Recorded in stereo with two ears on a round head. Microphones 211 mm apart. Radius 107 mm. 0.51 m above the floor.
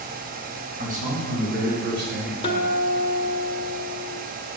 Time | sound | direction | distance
0.8 | a man speaking | 35° right (ahead or behind) | 3.5 m
2.4 | a guitar | 25° left (ahead or behind) | 1.4 m